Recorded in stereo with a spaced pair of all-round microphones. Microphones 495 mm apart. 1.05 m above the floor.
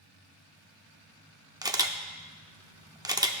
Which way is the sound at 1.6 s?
10° right (ahead or behind).